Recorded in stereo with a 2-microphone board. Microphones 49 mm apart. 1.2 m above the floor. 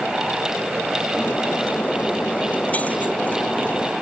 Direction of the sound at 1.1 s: 30° left (ahead or behind).